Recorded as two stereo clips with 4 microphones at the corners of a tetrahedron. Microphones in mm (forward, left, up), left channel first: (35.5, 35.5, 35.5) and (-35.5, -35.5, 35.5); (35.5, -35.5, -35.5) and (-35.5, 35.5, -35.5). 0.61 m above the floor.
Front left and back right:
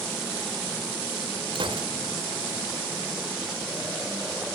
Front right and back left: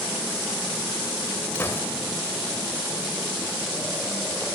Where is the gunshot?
110° right, 3 m.